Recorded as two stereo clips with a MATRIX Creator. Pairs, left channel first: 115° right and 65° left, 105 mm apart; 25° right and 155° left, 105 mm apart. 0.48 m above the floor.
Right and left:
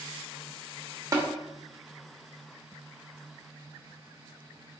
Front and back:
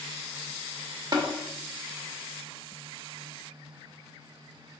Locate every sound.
1.1 s tapping: 120° left, 0.9 m